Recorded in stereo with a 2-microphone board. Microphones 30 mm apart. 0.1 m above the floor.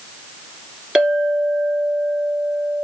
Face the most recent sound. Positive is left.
turn(degrees=-20)  # may be behind; listen again after turning